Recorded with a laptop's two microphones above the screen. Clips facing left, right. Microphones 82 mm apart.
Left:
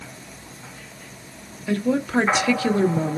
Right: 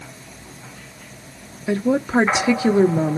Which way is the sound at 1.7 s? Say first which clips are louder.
Right 3 dB; 20° right (ahead or behind).